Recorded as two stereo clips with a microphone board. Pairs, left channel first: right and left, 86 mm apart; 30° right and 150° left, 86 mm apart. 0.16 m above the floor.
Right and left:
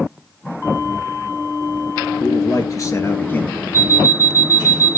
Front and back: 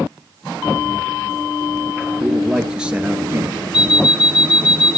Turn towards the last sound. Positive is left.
turn(degrees=-135)